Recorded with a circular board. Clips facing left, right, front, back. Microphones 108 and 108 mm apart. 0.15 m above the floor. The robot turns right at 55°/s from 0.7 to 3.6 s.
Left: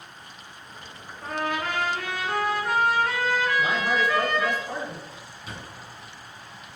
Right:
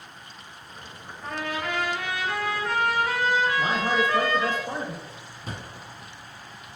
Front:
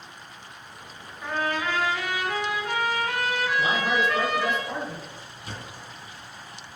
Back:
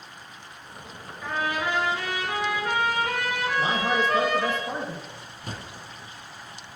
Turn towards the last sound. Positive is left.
turn(degrees=-135)